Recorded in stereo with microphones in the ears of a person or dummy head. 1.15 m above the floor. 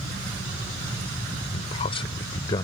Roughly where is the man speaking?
Left.